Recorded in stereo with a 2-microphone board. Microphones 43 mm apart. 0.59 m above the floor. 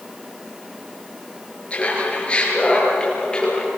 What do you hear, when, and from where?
1.7 s laughter: 30° left (ahead or behind), 8.5 m; by 3.7 s 20° left (ahead or behind), 9.5 m